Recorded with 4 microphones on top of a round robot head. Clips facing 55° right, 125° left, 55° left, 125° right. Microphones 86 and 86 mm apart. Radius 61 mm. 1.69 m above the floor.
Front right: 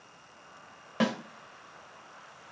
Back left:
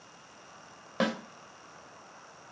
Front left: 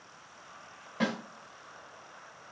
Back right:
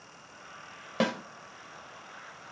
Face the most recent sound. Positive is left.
turn(degrees=-150)